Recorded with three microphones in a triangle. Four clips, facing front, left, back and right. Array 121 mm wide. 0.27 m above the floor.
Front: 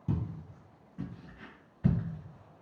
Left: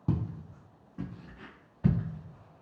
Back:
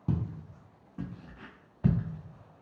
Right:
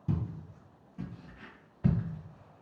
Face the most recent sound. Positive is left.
turn(degrees=-175)